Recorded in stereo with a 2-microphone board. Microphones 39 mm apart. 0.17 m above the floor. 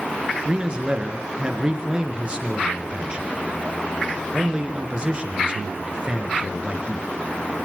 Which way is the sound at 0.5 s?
25° right (ahead or behind).